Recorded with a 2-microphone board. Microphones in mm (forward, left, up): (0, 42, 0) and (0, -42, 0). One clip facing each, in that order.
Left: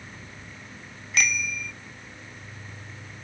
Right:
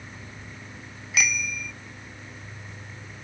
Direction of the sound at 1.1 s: 5° right (ahead or behind).